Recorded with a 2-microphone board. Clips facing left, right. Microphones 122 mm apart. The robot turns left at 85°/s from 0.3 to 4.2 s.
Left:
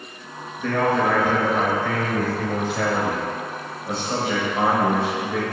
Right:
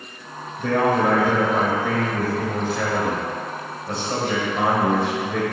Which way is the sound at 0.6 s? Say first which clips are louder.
Right 2 dB; 15° right (ahead or behind).